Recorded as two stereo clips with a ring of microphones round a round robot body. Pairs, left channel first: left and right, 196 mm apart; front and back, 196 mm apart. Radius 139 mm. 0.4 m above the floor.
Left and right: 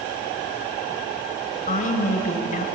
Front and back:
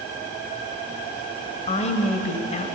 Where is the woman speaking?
50° left, 2 m.